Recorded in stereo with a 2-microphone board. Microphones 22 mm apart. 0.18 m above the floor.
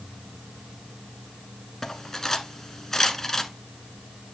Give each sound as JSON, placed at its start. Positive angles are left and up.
{"t": 1.8, "sound": "cutlery clinking", "side_deg": 20, "distance_m": 1.2}